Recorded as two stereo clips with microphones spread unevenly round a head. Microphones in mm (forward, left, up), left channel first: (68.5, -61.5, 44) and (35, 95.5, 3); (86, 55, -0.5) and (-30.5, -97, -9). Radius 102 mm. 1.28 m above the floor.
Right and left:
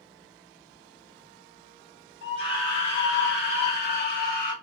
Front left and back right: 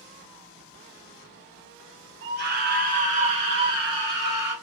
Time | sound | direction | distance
2.2 | a scream | 100° right | 1.2 m